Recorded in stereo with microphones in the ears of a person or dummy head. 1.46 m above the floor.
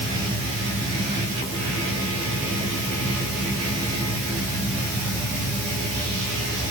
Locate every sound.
Only background noise.